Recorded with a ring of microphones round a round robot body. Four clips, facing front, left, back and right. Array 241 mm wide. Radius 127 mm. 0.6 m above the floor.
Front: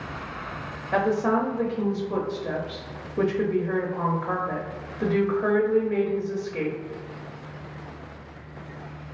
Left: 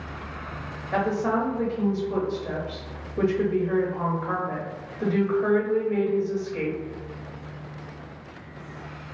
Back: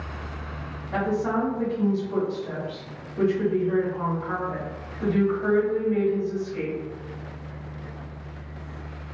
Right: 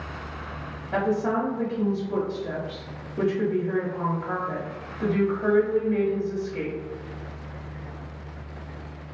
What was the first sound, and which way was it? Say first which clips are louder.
A woman speaking: even, front 3 dB; 10° left.